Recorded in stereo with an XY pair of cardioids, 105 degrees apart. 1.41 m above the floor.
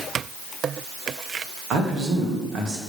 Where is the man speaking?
60° right, 1.8 m.